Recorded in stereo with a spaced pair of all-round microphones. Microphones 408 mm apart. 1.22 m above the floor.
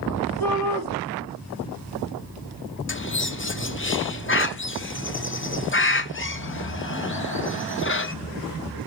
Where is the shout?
5° left (ahead or behind), 2.5 m.